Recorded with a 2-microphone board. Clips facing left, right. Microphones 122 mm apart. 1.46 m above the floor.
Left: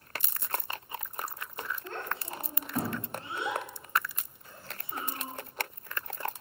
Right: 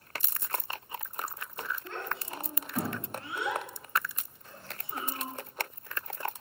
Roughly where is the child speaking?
Left.